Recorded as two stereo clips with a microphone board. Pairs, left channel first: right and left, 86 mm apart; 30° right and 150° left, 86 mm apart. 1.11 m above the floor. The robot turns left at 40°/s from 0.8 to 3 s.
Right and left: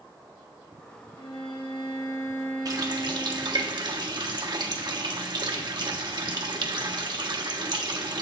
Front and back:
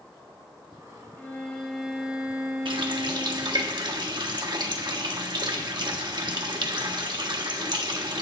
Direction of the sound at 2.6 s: 135° left.